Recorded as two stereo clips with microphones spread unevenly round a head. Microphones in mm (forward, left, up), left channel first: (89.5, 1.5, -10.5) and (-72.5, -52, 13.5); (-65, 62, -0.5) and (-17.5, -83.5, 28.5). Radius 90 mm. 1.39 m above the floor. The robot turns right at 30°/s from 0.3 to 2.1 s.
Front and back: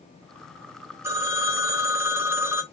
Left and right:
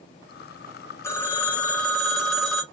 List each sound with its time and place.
1.0 s a phone ringing: 175° right, 0.6 m; by 2.6 s 145° right, 0.6 m